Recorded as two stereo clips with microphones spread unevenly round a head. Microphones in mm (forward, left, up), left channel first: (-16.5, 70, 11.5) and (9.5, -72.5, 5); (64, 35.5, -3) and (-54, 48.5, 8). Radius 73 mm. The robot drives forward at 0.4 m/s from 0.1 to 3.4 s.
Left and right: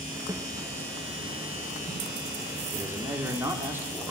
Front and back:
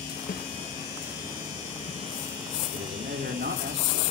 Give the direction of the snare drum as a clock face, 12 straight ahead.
12 o'clock.